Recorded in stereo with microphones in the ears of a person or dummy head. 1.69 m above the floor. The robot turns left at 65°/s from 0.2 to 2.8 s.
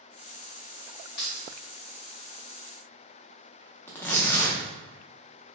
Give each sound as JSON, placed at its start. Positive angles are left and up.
{"t": 1.2, "sound": "keys jangling", "side_deg": 60, "distance_m": 1.4}
{"t": 3.9, "sound": "tearing paper", "side_deg": 10, "distance_m": 0.5}